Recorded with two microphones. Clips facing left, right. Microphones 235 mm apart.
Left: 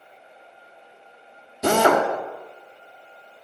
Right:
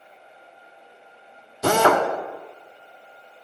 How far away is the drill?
About 1.9 m.